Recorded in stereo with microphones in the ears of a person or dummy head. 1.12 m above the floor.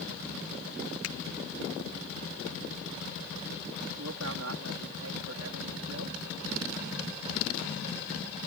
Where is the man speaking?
75° right (ahead or behind).